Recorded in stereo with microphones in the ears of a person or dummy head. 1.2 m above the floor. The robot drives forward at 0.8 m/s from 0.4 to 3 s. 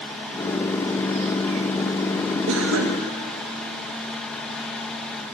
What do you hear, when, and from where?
2.5 s a cough: 80° right, 0.8 m; by 3.0 s 70° right (ahead or behind), 0.9 m